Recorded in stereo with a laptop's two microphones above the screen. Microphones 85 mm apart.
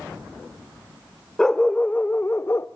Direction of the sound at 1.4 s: 10° left (ahead or behind).